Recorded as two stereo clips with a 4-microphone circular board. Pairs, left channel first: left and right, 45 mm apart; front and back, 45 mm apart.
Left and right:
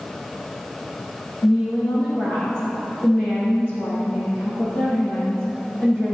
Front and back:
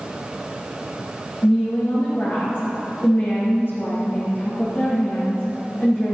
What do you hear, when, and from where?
1.4 s a woman speaking: 50° left, 3.5 m